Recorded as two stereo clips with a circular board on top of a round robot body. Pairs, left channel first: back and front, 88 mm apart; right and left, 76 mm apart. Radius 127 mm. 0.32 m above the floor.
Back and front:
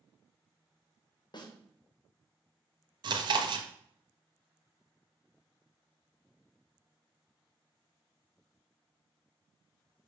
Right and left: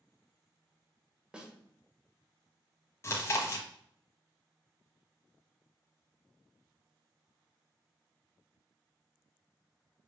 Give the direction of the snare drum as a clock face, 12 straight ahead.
6 o'clock.